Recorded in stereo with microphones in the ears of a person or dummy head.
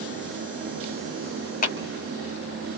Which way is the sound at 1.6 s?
40° left (ahead or behind).